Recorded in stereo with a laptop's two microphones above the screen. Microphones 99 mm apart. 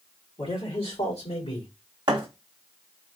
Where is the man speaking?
70° left (ahead or behind), 2.5 m; by 1.7 s 80° left, 2.5 m.